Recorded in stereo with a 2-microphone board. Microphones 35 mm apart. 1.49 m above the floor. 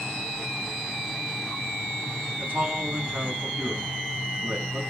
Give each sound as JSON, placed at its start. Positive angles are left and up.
{"t": 2.4, "sound": "a man speaking", "side_deg": -75, "distance_m": 3.0}